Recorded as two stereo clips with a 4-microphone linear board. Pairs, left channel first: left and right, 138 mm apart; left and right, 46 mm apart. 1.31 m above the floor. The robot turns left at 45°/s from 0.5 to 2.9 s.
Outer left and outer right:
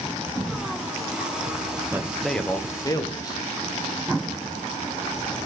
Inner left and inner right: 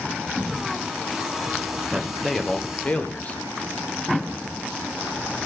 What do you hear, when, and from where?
1.9 s a man speaking: 165° right, 0.9 m; by 3.4 s 150° left, 0.9 m